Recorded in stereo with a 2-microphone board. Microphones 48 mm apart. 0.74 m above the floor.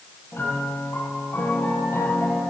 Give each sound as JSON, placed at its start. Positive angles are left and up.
{"t": 0.3, "sound": "a piano", "side_deg": 60, "distance_m": 7.5}